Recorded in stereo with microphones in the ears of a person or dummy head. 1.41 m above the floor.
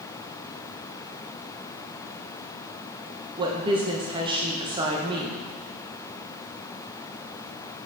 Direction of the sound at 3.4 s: 20° right (ahead or behind).